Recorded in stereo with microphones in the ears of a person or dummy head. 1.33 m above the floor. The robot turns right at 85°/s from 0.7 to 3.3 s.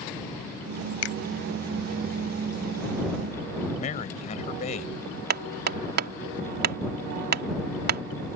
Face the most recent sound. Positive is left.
turn(degrees=-55)  # may be behind; listen again after turning